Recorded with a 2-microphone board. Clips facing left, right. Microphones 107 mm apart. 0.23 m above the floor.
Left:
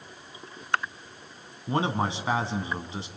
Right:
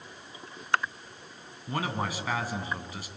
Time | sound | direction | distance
1.7 | a man speaking | 25° left (ahead or behind) | 1.8 m